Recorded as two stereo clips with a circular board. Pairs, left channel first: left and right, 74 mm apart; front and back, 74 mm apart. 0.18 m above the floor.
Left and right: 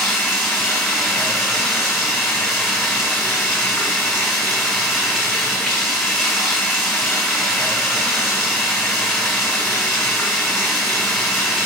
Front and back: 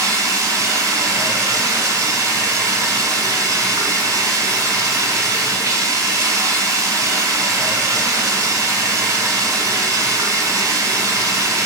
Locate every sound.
0.0 s running water: 175° left, 1.9 m